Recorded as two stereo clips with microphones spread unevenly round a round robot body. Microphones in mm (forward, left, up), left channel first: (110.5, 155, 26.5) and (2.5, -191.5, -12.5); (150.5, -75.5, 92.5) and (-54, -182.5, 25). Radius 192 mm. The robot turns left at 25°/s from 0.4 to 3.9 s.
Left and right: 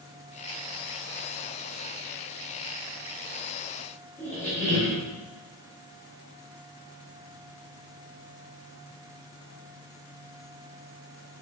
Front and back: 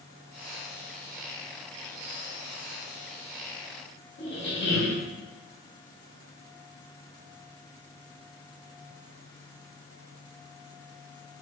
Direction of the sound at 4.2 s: 10° right.